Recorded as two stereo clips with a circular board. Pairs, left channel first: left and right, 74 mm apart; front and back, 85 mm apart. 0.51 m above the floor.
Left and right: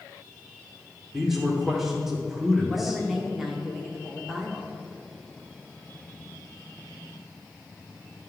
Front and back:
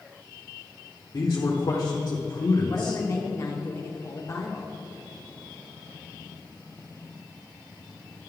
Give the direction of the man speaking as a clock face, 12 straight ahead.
12 o'clock.